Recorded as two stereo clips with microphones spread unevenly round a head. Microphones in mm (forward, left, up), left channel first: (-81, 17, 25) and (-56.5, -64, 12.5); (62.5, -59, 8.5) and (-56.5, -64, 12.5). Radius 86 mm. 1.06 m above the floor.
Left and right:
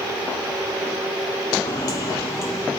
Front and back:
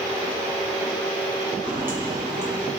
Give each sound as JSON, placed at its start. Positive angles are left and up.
{"t": 1.6, "sound": "footsteps", "azimuth_deg": 105, "distance_m": 1.5}